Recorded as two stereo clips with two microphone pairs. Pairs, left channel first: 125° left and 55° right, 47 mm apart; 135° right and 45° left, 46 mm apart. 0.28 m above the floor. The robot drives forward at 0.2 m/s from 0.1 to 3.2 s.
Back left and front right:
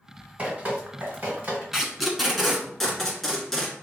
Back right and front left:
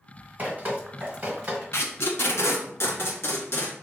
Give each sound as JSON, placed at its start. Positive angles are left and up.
{"t": 0.4, "sound": "dripping", "azimuth_deg": -5, "distance_m": 1.6}
{"t": 1.7, "sound": "tape being pulled", "azimuth_deg": -140, "distance_m": 0.7}